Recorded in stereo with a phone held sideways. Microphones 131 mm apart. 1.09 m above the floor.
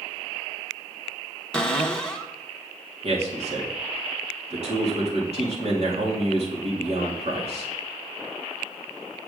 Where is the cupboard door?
5° left (ahead or behind), 1.2 m.